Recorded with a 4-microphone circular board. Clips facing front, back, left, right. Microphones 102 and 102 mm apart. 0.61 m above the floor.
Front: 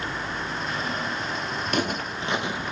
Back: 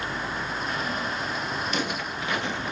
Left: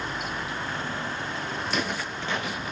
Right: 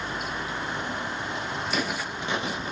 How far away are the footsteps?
About 0.9 m.